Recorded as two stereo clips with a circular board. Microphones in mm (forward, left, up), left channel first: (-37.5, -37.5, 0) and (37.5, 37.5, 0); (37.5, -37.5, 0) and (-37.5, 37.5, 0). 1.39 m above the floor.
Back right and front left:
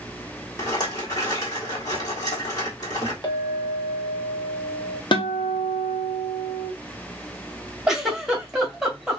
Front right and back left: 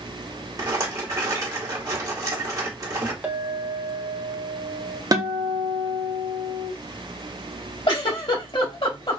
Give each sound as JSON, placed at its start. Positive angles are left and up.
{"t": 0.6, "sound": "a rattle", "azimuth_deg": 180, "distance_m": 1.4}
{"t": 3.2, "sound": "a clink", "azimuth_deg": -160, "distance_m": 1.0}
{"t": 5.1, "sound": "a guitar", "azimuth_deg": -170, "distance_m": 0.7}
{"t": 7.9, "sound": "a giggle", "azimuth_deg": -40, "distance_m": 1.3}